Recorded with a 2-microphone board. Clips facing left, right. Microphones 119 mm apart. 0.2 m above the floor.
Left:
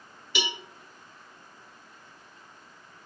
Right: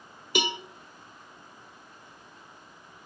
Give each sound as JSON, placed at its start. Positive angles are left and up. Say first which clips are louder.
{"t": 0.3, "sound": "a cowbell", "louder": "right 5 dB", "side_deg": -50, "distance_m": 0.7}